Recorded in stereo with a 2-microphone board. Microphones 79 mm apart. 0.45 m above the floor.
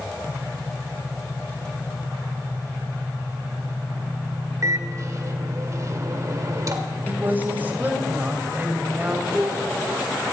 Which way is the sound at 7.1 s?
25° right (ahead or behind).